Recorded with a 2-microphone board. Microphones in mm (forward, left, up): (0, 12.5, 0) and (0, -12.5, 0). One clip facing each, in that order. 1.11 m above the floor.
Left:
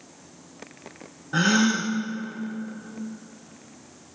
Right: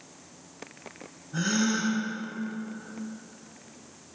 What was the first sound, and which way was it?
A gasp, 60° left (ahead or behind).